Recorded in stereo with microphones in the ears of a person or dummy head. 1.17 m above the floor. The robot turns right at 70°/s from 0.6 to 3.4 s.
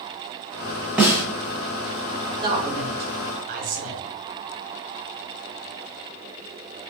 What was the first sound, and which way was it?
A snare drum, 5° right (ahead or behind).